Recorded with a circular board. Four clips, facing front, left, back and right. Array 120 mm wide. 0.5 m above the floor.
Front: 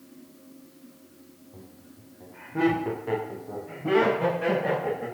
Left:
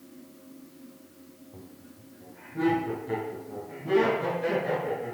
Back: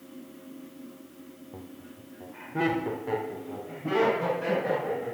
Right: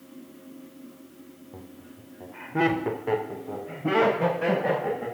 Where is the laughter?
140° right, 1.6 m; by 5.0 s 65° right, 4.5 m.